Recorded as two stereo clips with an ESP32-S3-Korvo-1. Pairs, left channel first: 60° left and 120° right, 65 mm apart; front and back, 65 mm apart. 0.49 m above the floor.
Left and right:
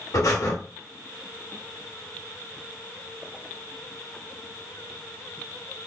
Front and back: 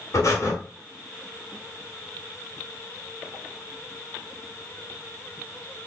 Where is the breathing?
35° left, 1.4 m.